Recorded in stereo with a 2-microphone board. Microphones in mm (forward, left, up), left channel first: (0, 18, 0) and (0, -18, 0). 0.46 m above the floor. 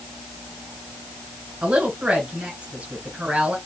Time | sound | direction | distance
1.6 | a woman speaking | 40° right (ahead or behind) | 2.5 m